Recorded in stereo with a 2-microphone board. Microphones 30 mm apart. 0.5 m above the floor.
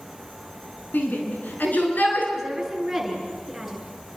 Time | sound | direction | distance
0.9 | a shout | 75° left (ahead or behind) | 4.5 m
2.4 | a woman speaking | centre (ahead or behind) | 7.5 m